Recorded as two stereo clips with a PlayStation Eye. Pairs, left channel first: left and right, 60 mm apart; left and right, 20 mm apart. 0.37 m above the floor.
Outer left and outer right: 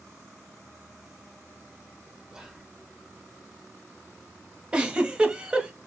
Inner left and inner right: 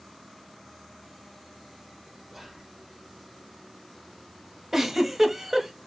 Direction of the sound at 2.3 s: 10° right (ahead or behind).